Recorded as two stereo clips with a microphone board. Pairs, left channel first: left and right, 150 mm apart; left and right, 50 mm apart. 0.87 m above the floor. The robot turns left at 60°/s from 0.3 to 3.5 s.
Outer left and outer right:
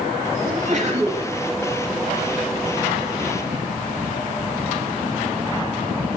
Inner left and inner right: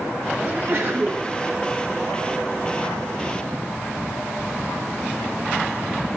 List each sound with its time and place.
0.4 s a sneeze: 90° right, 1.6 m; by 1.2 s 140° right, 1.6 m